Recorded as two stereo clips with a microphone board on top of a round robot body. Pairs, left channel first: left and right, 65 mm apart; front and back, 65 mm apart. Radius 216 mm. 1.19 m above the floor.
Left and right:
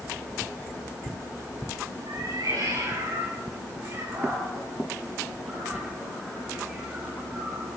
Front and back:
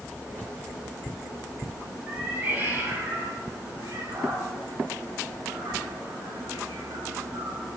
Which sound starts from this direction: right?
A cat meowing, at 2.1 s.